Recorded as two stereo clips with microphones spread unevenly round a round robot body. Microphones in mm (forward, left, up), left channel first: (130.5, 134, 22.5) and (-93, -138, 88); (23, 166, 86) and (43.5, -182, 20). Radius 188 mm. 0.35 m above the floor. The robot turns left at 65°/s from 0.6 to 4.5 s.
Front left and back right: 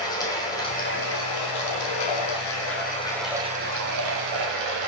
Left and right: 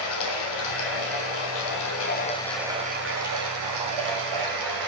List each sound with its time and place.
0.0 s running water: 130° left, 3 m; by 4.9 s 120° right, 3 m